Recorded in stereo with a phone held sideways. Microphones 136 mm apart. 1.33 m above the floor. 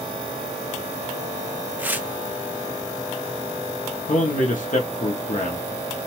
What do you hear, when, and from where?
1.8 s tearing paper: 15° right (ahead or behind), 0.5 m
4.1 s a man speaking: 70° left (ahead or behind), 0.7 m